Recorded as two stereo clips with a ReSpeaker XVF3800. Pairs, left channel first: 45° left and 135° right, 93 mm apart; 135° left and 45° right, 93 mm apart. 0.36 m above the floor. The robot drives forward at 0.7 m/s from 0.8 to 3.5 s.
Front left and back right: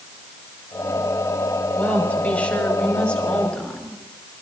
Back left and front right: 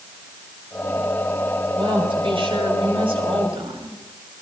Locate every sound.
1.8 s a woman speaking: 30° right, 6 m; by 4.0 s 35° right, 5 m